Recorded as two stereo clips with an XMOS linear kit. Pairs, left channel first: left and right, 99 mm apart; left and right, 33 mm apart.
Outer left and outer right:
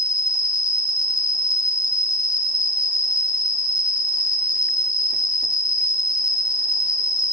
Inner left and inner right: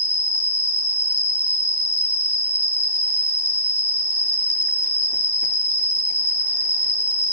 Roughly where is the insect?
Right.